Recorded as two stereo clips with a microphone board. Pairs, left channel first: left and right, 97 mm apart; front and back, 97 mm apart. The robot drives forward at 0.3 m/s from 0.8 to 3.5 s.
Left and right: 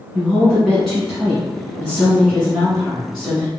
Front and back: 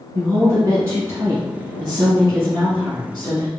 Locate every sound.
0.1 s a woman speaking: 175° right, 1.6 m